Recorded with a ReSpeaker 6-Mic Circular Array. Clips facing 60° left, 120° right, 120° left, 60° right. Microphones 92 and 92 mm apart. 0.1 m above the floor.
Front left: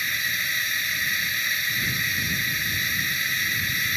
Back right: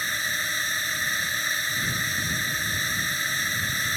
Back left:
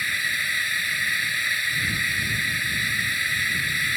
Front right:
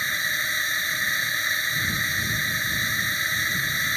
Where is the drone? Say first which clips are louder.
Even, even; 105° right.